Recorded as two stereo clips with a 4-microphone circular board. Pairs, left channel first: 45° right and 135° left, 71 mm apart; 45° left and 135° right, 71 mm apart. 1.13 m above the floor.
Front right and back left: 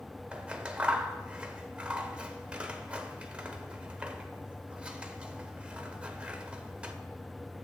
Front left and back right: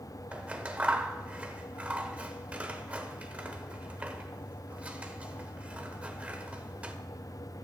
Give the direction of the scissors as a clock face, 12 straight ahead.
6 o'clock.